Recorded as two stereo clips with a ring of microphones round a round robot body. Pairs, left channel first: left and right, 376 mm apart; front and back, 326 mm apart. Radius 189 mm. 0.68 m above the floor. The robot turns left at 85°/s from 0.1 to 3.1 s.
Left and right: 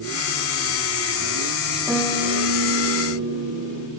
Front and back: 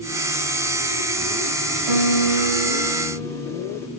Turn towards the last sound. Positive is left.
turn(degrees=80)